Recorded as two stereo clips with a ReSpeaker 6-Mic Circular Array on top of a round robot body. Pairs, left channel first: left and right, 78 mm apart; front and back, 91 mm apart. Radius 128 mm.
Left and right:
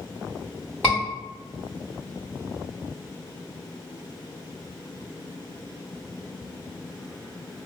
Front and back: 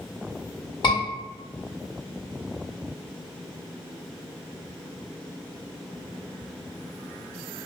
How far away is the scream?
About 1.6 m.